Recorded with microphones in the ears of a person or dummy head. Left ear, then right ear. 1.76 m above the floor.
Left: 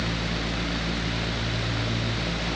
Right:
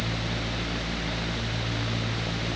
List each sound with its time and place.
Only background noise.